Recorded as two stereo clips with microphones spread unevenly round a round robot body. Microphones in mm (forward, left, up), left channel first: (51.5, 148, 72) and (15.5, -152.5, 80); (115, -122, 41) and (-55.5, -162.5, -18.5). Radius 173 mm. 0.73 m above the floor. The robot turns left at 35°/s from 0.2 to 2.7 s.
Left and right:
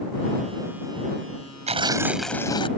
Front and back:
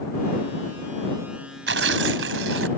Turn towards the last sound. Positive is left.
turn(degrees=155)